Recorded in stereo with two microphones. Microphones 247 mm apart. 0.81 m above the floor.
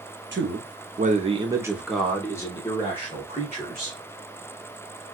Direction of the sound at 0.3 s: 50° right (ahead or behind).